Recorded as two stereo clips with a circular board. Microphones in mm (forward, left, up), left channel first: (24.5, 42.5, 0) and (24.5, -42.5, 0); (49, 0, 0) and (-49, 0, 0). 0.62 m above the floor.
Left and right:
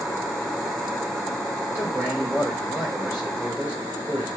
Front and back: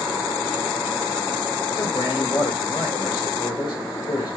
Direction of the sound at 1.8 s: 30° right.